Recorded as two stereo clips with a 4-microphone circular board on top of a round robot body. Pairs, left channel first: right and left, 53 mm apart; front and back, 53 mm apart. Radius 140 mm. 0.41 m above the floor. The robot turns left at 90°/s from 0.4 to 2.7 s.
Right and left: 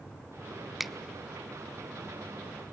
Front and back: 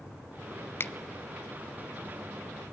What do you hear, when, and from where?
0.8 s a finger snap: 5° left, 0.6 m; by 0.9 s 5° right, 0.6 m